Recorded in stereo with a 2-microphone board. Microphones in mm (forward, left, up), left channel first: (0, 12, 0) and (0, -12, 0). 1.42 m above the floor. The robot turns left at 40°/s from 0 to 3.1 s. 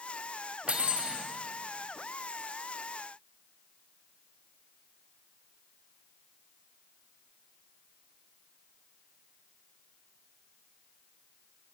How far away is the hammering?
I don't hear hammering.